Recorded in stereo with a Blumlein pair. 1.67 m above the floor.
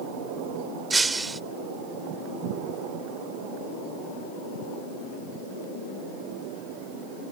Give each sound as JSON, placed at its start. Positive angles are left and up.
{"t": 0.9, "sound": "breaking glass", "azimuth_deg": -10}